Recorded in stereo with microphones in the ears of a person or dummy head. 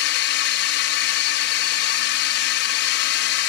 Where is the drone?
60° left (ahead or behind).